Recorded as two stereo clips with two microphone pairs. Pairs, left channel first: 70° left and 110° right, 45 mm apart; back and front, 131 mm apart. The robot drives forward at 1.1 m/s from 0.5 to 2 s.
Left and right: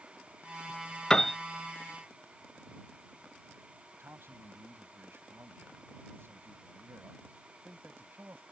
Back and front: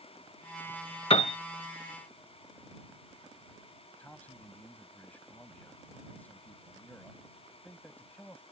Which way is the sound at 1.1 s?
140° left.